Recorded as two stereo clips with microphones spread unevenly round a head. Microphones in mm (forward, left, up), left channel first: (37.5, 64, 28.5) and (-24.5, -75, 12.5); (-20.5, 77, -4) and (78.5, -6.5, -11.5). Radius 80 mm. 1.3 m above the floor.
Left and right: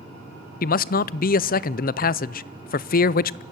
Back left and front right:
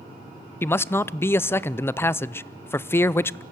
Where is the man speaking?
70° left, 0.5 m.